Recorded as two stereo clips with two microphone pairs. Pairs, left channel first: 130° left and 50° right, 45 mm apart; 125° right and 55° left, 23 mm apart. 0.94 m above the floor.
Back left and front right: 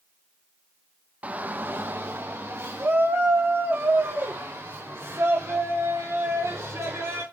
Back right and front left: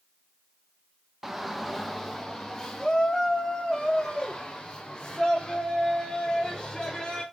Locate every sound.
1.2 s a shout: 20° right, 0.8 m; by 7.2 s 55° right, 4 m